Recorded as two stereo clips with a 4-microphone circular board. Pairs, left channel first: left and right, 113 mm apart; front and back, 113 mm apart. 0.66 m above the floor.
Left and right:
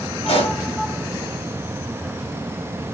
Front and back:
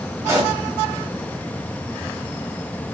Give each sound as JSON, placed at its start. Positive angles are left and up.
{"t": 0.3, "sound": "a pop", "azimuth_deg": 115, "distance_m": 4.5}